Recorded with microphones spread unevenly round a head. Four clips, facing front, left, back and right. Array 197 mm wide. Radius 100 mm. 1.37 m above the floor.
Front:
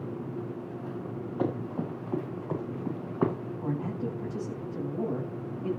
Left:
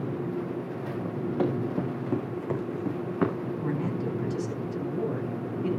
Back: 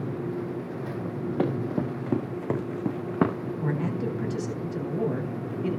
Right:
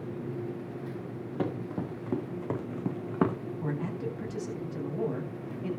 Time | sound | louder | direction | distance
1.4 | running footsteps | left 5 dB, back 4 dB | 165° left | 5 m
3.6 | a man speaking | left 3 dB, back 3 dB | straight behind | 9.5 m